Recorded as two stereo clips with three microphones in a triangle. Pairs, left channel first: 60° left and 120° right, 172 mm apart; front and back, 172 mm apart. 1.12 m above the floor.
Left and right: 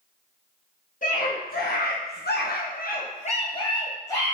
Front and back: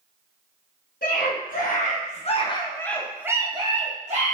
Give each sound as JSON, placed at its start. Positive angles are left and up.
{"t": 1.0, "sound": "a scream", "azimuth_deg": 25, "distance_m": 1.4}